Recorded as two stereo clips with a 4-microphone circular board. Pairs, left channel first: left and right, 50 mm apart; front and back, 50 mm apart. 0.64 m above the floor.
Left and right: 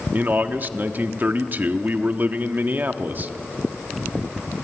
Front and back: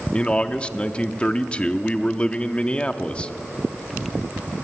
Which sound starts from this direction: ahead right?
A man speaking, at 0.1 s.